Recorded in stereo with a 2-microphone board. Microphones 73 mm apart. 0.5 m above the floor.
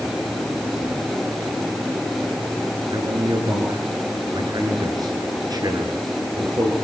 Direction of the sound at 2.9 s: 65° right (ahead or behind).